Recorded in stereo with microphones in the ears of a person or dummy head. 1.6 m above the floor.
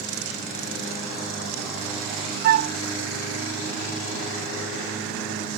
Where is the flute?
55° right (ahead or behind).